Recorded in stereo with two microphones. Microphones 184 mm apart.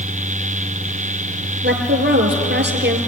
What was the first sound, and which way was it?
A woman speaking, 65° right (ahead or behind).